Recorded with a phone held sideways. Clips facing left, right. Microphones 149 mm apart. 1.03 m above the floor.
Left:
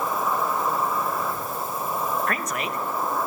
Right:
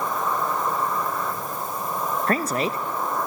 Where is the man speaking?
30° right (ahead or behind), 1.1 m.